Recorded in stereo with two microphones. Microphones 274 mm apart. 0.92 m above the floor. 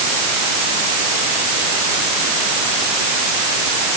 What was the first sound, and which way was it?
Only background noise.